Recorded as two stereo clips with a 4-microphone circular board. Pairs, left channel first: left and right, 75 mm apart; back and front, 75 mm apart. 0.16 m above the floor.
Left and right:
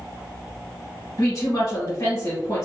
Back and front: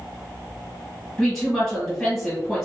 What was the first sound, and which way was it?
A woman speaking, 115° left.